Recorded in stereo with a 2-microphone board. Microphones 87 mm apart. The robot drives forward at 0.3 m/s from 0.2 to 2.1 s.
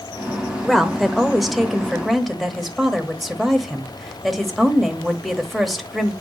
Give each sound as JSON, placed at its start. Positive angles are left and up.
{"t": 0.6, "sound": "a woman speaking", "side_deg": 0, "distance_m": 1.0}